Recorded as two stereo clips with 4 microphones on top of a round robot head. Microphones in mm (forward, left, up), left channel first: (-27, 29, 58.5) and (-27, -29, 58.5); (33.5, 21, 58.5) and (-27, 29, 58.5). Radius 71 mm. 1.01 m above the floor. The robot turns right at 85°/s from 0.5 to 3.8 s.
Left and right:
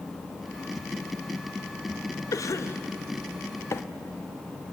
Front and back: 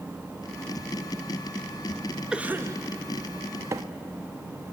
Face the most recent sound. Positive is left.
turn(degrees=135)